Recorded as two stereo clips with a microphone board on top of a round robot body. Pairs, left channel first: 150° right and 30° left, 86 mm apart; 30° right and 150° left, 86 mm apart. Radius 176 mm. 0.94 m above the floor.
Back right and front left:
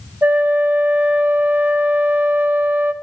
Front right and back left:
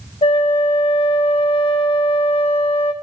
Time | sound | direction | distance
0.2 | a flute | 45° right | 0.8 m